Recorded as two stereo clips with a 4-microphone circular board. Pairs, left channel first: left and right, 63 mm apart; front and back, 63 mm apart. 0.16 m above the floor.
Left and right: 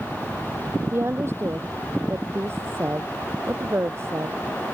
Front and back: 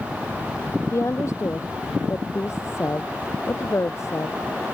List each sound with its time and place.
0.9 s a woman speaking: 45° right